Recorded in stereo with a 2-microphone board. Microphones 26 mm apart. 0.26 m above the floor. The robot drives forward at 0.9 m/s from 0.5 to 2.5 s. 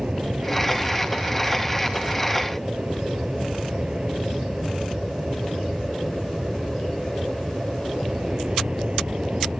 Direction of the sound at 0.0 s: 40° right (ahead or behind).